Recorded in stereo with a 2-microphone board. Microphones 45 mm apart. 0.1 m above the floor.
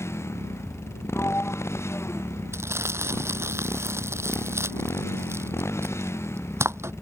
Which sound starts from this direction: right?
Crumpling, at 2.5 s.